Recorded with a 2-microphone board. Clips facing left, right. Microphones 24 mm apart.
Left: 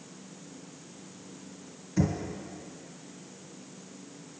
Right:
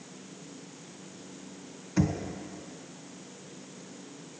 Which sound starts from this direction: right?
Knocking, at 2.0 s.